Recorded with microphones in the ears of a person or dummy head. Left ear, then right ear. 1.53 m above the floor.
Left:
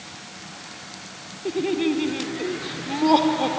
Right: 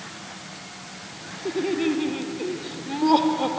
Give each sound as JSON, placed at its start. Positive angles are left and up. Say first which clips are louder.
{"t": 1.4, "sound": "laughter", "louder": "left 1 dB", "side_deg": 10}